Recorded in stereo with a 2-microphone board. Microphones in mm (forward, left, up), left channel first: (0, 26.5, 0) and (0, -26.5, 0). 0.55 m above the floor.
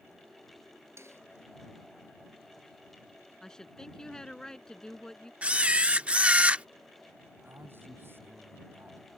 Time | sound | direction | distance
1.0 | a snare drum | 55° right (ahead or behind) | ?
3.4 | a woman speaking | 10° left (ahead or behind) | ?
5.4 | a camera shutter | 20° right (ahead or behind) | ?
7.4 | a man speaking | 45° right (ahead or behind) | ?